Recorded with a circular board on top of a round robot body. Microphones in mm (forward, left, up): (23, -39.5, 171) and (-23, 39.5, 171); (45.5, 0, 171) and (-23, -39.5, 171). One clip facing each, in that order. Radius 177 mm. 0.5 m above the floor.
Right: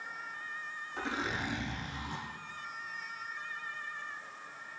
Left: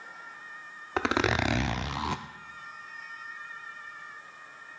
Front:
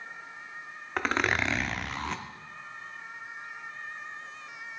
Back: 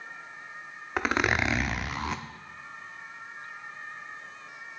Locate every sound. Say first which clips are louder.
1.0 s a zipper: left 10 dB, back 1 dB; 125° left, 0.5 m